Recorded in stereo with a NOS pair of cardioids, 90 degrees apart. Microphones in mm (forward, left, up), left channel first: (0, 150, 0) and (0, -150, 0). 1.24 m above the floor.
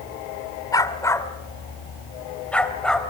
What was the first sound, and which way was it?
A dog barking, 15° left.